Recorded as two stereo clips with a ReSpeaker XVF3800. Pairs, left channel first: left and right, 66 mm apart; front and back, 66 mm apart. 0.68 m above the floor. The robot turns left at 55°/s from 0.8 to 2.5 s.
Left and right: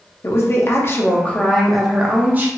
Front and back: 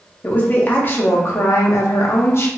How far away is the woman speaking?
About 0.7 m.